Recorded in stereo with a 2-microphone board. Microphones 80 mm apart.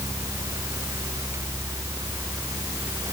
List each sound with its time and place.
Only background noise.